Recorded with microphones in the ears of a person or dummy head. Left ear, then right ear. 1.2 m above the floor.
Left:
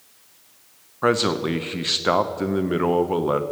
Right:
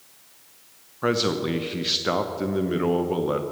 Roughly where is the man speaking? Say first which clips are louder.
Left 3 dB; left.